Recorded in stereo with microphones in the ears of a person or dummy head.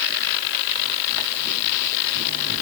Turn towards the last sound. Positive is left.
No sound to turn to.